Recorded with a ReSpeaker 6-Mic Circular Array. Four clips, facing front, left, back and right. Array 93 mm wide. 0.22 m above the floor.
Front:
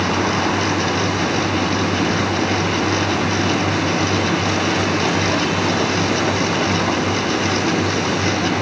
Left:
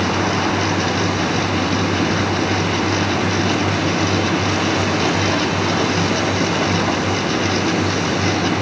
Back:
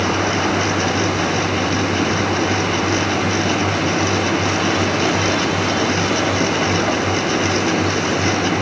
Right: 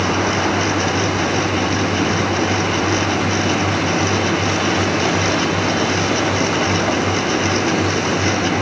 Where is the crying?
No crying in this recording.